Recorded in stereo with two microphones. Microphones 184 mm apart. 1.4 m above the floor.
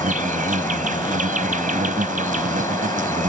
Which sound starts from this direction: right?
An insect, at 0.0 s.